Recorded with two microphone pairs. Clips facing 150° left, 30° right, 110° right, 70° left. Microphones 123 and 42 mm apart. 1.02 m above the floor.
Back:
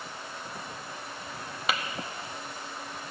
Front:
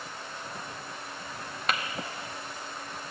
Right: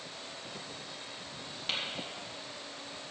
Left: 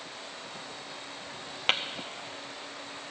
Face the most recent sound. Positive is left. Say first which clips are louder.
# even, left 8 dB
turn(degrees=65)